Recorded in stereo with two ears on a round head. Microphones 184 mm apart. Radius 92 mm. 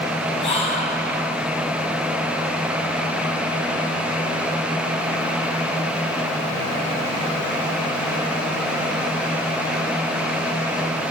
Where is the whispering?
30° left (ahead or behind), 6 m.